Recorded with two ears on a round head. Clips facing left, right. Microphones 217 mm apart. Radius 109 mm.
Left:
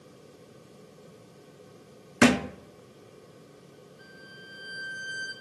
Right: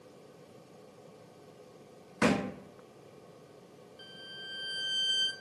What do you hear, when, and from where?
2.2 s a thud: 80° left, 0.7 m
4.0 s a violin: 50° right (ahead or behind), 1.3 m